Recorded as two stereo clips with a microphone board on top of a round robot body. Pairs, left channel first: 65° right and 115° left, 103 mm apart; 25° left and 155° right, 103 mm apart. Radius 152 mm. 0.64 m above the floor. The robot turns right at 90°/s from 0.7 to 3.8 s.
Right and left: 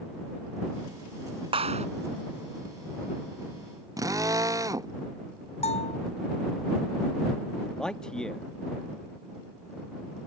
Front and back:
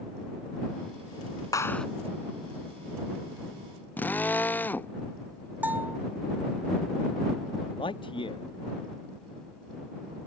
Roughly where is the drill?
Left.